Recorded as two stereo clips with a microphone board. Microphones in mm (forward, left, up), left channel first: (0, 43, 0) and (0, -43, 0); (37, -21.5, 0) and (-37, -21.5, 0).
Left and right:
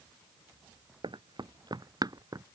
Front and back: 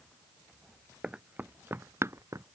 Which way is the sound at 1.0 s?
105° right.